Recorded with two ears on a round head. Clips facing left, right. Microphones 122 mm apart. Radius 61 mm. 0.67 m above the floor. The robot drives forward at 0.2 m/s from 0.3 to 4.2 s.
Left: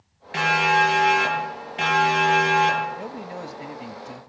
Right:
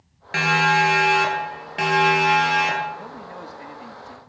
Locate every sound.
0.3 s a siren: 65° right (ahead or behind), 9 m; by 2.9 s 75° right (ahead or behind), 11 m
3.0 s a man speaking: 25° left (ahead or behind), 0.9 m; by 4.3 s 20° left (ahead or behind), 1.0 m